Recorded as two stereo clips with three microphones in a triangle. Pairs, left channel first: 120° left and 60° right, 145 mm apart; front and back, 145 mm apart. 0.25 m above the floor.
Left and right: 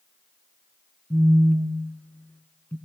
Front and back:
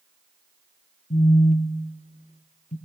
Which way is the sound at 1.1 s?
45° left.